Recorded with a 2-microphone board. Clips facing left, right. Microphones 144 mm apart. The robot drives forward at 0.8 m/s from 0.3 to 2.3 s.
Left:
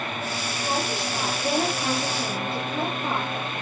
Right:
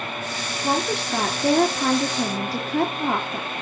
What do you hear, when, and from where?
0.6 s a woman speaking: 65° right (ahead or behind), 2.5 m; by 3.5 s 80° right, 2 m